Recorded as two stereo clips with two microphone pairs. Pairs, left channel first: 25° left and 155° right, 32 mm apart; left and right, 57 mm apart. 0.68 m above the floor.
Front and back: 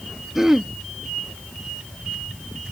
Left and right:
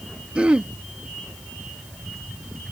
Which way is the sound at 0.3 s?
115° right.